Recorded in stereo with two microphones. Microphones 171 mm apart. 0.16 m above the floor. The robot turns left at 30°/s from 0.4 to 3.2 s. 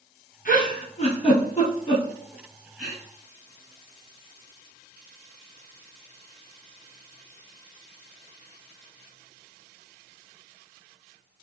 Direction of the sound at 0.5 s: 60° left (ahead or behind).